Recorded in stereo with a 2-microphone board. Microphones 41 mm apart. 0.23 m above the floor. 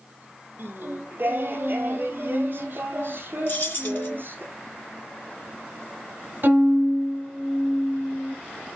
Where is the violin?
50° right (ahead or behind), 3 m.